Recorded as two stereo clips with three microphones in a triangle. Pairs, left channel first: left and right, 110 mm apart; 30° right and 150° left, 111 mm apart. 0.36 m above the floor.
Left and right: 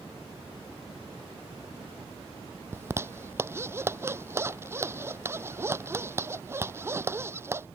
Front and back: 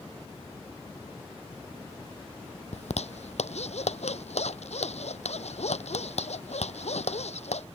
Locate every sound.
2.7 s a zipper: 25° right